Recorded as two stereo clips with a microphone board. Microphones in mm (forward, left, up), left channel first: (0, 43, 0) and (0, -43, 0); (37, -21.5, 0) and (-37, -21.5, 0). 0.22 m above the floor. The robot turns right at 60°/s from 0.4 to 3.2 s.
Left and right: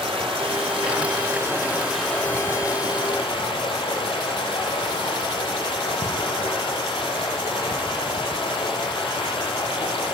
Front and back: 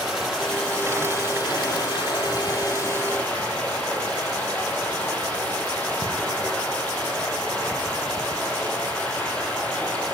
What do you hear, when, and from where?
0.0 s running water: 95° right, 4 m; by 10.1 s 75° left, 4 m